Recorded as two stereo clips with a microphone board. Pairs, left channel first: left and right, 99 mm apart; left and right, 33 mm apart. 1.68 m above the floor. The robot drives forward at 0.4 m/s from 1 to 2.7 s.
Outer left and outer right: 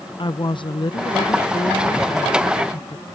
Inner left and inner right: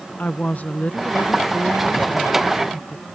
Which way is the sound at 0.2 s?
50° left (ahead or behind).